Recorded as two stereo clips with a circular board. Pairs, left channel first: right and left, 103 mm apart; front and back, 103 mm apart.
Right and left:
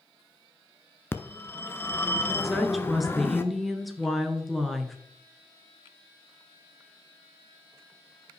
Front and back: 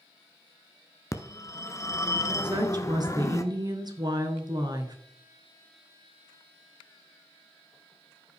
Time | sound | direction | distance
1.1 | a phone ringing | 35° right | 0.8 m
2.4 | a woman speaking | straight behind | 1.3 m